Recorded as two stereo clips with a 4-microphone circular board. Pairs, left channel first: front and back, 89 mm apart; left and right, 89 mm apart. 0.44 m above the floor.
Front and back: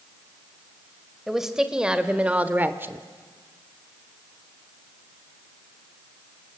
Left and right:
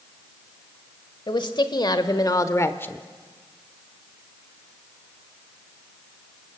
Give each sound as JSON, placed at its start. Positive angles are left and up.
{"t": 1.3, "sound": "a woman speaking", "azimuth_deg": 95, "distance_m": 1.8}